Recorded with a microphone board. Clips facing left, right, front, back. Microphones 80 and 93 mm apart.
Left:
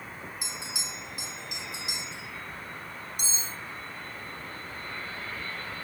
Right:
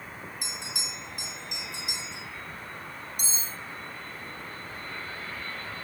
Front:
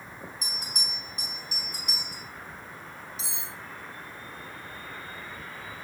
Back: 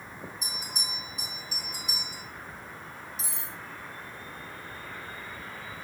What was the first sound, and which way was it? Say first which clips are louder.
A bell: even, even; 5° left.